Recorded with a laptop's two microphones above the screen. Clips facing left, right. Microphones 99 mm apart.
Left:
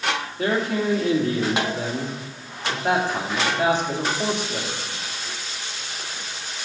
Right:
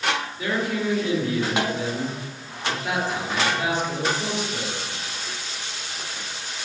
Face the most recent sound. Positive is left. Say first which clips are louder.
# left 5 dB
turn(degrees=55)  # may be behind; listen again after turning